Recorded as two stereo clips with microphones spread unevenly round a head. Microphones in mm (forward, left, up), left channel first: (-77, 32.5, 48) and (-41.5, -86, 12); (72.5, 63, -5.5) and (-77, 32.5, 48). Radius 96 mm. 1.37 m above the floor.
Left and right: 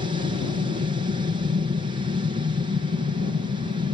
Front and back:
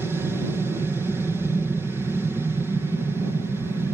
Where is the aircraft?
80° right.